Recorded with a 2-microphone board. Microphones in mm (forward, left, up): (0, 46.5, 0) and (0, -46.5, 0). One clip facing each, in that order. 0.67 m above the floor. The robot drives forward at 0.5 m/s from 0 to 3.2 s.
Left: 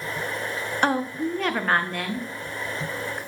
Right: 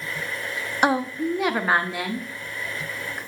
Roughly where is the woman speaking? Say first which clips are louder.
Right 2 dB; centre.